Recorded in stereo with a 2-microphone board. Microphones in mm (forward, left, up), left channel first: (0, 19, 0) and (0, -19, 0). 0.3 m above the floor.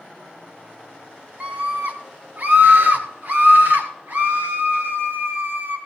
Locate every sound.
1.4 s a scream: 35° right (ahead or behind), 2.5 m; by 5.8 s 45° right (ahead or behind), 6.5 m